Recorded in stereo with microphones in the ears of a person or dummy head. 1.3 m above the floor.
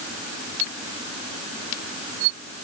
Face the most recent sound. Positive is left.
No sound to turn to.